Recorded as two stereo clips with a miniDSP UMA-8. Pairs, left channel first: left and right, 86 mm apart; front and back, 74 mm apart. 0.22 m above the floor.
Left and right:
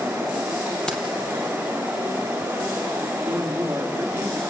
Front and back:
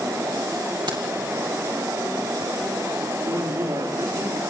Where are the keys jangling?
170° left, 4 m.